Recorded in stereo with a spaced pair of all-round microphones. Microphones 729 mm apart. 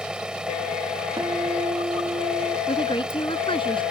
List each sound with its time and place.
0.0 s an engine running: centre (ahead or behind)
1.2 s a guitar: 5° right (ahead or behind)
2.7 s a woman speaking: 5° left (ahead or behind)